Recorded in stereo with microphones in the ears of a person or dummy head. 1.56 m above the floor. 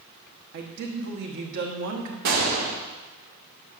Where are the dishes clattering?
I don't hear dishes clattering.